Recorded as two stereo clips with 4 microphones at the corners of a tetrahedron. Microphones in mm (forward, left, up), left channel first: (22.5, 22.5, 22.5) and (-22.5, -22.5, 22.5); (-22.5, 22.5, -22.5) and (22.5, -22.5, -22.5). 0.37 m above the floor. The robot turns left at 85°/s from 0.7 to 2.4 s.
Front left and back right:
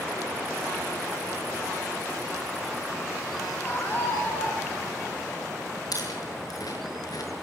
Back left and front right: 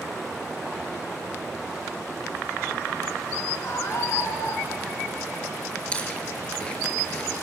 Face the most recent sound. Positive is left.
turn(degrees=60)